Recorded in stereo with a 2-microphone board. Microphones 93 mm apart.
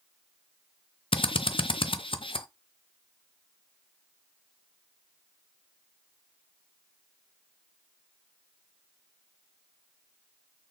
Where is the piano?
No piano in this recording.